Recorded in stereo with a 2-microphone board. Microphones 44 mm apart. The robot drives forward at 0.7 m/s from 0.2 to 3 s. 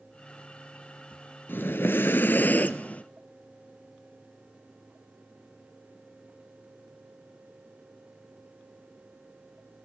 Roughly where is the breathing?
Left.